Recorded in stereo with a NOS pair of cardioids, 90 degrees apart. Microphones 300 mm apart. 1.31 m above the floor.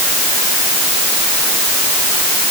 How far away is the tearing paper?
I don't hear tearing paper.